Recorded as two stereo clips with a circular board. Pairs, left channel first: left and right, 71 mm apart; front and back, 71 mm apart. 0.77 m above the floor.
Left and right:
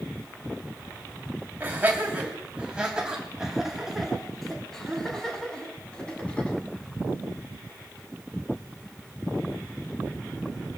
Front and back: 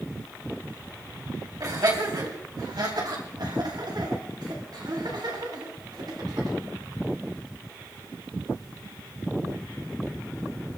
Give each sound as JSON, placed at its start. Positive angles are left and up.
{"t": 1.6, "sound": "laughter", "azimuth_deg": -150, "distance_m": 5.5}